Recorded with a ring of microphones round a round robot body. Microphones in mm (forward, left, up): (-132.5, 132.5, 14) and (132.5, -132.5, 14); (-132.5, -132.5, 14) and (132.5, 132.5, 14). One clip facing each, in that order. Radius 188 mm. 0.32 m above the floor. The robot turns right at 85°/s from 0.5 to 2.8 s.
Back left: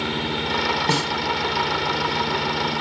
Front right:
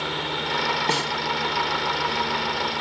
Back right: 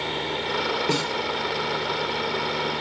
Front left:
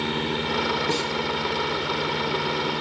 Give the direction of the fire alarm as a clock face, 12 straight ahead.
I don't hear a fire alarm.